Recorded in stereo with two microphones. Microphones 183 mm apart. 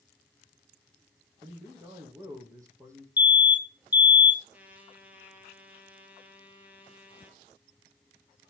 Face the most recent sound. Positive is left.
turn(degrees=-10)  # may be behind; listen again after turning